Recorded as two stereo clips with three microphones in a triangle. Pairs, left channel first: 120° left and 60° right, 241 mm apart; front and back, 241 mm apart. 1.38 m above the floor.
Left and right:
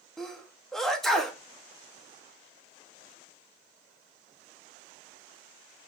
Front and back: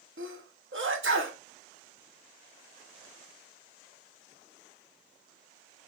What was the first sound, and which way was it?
A sneeze, 150° right.